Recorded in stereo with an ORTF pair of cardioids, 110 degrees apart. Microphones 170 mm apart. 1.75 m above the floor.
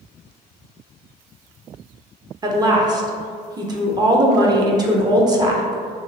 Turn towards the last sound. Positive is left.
turn(degrees=-25)